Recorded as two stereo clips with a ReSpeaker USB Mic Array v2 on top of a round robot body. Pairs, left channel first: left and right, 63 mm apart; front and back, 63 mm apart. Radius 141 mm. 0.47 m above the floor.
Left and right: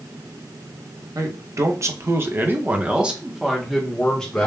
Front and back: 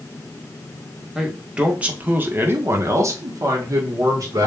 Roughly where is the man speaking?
Right.